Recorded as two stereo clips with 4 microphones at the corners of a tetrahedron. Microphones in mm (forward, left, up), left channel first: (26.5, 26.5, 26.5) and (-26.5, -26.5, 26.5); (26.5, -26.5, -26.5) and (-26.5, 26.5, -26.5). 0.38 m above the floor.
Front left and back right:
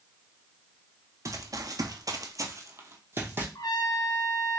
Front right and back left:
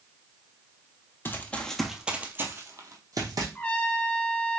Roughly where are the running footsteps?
Right.